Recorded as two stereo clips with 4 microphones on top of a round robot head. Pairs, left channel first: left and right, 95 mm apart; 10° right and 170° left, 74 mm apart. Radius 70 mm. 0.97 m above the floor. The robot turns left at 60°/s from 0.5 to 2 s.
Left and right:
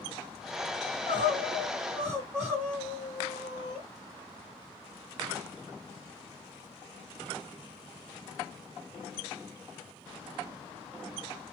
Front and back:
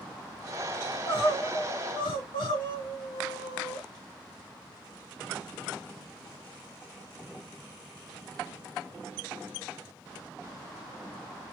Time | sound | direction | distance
0.8 | crying | 60° left | 2.5 m